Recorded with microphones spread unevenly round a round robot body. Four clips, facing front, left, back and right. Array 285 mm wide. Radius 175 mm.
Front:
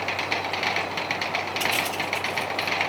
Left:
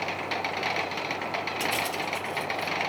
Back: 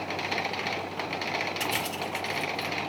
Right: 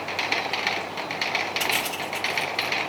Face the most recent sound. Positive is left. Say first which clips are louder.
# right 1 dB, front 4 dB
turn(degrees=165)